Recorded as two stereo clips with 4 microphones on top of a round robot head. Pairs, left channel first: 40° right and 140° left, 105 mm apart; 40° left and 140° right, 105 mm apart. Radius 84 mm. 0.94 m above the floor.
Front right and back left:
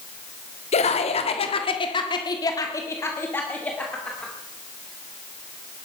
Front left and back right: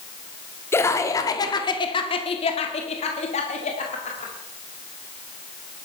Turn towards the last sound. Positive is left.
turn(degrees=45)